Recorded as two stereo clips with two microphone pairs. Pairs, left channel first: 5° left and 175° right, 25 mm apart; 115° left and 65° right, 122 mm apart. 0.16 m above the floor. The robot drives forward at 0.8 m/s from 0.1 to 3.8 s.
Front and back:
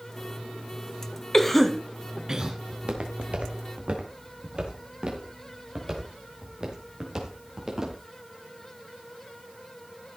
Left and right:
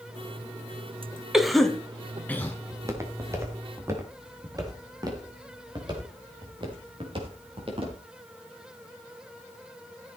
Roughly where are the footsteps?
Behind right.